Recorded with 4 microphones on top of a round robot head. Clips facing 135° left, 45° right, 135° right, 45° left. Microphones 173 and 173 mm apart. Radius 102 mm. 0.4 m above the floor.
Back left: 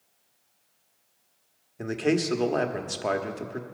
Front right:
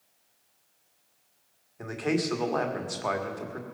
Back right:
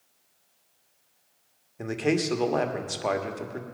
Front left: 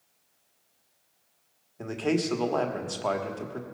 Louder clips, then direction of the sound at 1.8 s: Back left 3 dB, back right 1 dB; 155° left.